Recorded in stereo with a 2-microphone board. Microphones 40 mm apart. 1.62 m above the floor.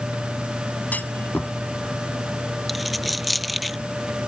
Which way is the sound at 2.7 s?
Centre (ahead or behind).